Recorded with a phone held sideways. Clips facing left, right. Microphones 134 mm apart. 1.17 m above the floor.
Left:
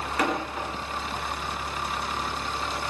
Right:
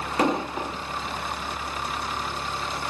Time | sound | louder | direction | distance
0.2 | an explosion | right 4 dB | 25° right (ahead or behind) | 0.7 m